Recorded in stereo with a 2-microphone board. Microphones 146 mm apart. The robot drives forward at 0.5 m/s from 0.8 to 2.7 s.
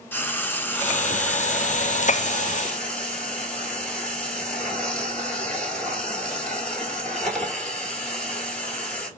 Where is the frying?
15° left (ahead or behind), 0.6 m; by 9.1 s 5° left (ahead or behind), 1.5 m.